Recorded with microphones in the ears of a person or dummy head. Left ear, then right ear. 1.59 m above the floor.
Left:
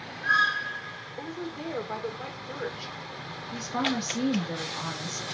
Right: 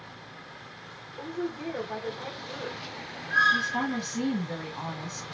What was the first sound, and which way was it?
A woman speaking, 65° left (ahead or behind).